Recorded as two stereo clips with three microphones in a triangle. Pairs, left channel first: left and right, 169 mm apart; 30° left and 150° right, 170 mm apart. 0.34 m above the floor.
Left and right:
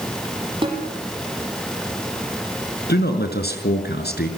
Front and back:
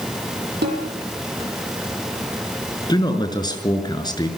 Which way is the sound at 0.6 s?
150° right.